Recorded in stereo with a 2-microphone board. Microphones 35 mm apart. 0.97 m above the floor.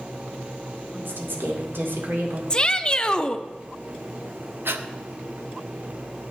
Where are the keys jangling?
No keys jangling in this recording.